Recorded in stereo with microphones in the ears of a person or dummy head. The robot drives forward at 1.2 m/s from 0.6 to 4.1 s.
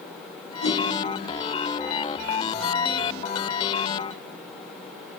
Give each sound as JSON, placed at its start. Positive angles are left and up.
{"t": 0.6, "sound": "a whoosh", "side_deg": 90, "distance_m": 5.0}